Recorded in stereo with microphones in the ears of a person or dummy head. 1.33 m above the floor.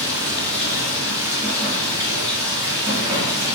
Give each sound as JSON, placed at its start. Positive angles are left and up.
{"t": 0.0, "sound": "running water", "side_deg": -20, "distance_m": 2.0}